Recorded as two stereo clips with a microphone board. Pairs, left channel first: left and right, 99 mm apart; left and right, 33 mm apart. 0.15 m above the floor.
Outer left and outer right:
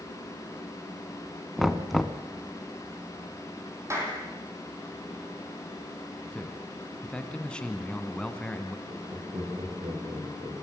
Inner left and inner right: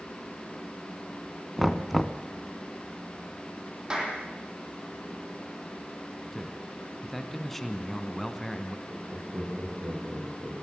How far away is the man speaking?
About 1.5 m.